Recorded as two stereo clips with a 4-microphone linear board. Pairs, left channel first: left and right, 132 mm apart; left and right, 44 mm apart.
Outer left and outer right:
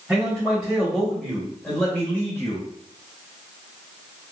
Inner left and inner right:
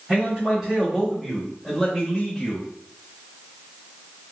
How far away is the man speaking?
About 2 m.